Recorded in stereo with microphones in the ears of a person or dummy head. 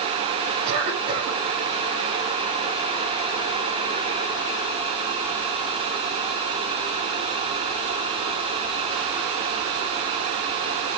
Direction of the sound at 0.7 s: 25° right (ahead or behind).